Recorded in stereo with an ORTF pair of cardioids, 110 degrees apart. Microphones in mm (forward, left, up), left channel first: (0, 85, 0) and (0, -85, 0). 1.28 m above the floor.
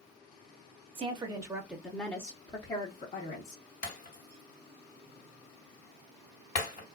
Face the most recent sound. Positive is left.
turn(degrees=50)